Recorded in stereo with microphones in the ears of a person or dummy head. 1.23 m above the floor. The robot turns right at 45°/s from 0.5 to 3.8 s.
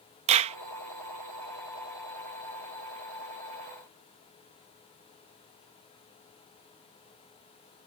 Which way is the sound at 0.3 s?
35° right (ahead or behind).